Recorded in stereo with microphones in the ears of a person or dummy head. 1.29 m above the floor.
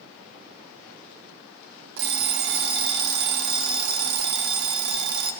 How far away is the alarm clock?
About 1.1 m.